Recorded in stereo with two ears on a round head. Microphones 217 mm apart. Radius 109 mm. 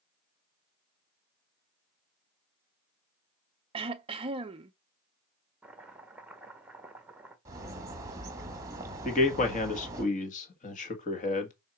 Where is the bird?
15° right (ahead or behind), 1.5 m.